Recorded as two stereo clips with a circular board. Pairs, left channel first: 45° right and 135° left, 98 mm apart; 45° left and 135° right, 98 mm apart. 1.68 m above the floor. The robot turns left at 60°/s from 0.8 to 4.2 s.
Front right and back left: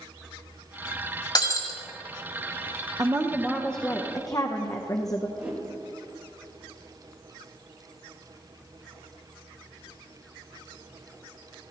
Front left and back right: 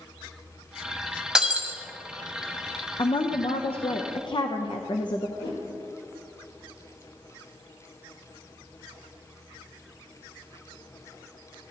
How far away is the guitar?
No guitar in this recording.